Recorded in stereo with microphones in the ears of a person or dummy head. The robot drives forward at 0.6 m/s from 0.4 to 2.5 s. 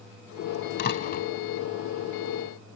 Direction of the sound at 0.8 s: 50° left (ahead or behind).